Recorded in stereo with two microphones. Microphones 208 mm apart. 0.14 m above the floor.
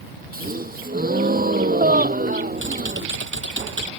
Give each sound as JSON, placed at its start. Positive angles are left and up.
{"t": 0.3, "sound": "a gasp", "side_deg": -45}
{"t": 2.6, "sound": "typing on a keyboard", "side_deg": -65}